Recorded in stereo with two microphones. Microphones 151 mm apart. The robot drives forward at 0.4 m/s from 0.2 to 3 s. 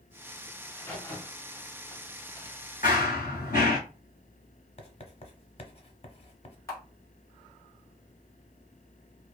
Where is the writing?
40° left (ahead or behind), 0.6 m.